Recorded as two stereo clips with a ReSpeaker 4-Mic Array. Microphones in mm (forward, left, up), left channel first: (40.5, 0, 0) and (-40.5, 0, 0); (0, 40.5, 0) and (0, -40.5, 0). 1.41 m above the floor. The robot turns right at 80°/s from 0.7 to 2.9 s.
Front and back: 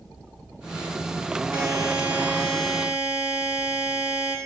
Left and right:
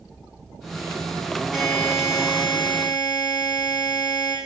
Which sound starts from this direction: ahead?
A buzzer, at 1.5 s.